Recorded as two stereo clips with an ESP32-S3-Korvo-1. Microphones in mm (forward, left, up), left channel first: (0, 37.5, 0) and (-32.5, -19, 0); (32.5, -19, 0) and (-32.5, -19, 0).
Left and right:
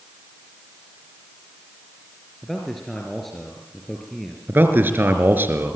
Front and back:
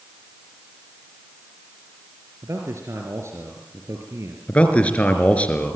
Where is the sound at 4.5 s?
65° right, 3.5 m.